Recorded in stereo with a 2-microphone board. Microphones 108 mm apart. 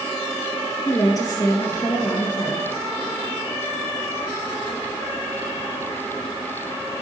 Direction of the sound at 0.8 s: 35° left (ahead or behind).